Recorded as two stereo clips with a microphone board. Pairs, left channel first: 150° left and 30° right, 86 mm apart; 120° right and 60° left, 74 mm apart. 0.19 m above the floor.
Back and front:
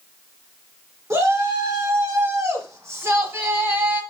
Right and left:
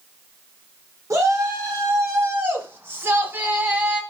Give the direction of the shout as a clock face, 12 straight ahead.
11 o'clock.